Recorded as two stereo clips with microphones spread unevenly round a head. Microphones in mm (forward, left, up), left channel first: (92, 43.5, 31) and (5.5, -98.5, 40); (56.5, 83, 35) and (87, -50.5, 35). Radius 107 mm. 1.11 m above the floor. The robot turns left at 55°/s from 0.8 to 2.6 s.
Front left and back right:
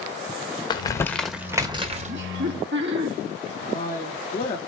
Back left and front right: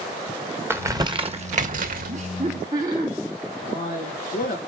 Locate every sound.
0.7 s crumpling: 5° right, 1.5 m; by 2.1 s 80° right, 1.5 m
2.1 s laughter: 120° right, 2 m; by 3.1 s 150° right, 2 m
3.6 s a man speaking: 105° left, 2.5 m